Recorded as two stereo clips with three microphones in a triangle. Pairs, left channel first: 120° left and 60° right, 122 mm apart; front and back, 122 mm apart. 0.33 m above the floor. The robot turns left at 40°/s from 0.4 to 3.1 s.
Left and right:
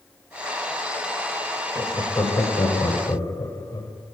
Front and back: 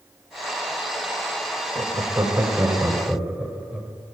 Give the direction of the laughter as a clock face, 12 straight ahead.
7 o'clock.